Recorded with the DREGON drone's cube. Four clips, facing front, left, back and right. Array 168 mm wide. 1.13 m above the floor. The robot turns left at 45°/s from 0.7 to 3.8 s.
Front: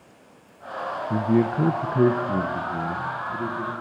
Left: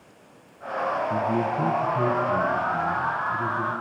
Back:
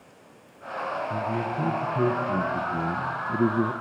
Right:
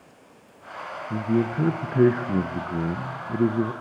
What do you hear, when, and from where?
1.1 s a man speaking: 15° right, 0.7 m; by 3.7 s 135° right, 0.7 m